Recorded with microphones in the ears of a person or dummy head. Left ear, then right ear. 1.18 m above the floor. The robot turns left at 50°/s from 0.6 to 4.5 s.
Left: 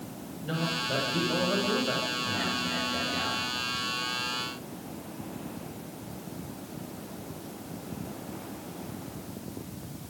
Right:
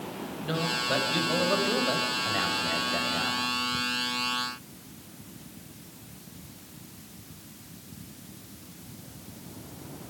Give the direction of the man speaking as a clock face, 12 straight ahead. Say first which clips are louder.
Right 2 dB; 1 o'clock.